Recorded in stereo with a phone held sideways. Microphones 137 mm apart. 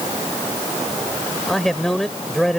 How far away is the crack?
No crack in this recording.